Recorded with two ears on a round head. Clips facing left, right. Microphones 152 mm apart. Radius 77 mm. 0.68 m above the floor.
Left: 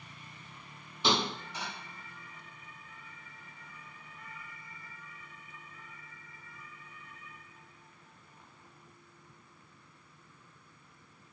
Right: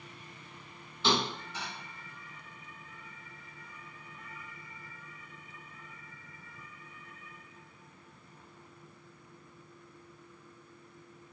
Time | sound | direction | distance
1.0 | a thud | 15° left (ahead or behind) | 1.5 m